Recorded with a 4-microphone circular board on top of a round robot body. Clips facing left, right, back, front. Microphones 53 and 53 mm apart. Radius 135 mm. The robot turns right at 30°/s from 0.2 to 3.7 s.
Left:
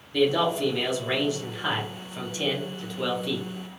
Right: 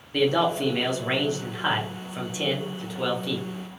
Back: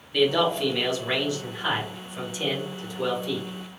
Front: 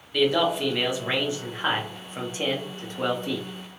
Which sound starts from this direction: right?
A man speaking, at 0.1 s.